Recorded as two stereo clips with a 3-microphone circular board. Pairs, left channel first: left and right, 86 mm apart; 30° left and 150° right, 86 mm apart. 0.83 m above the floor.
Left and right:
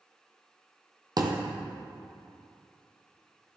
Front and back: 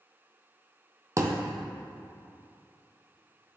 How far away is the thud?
About 1.3 m.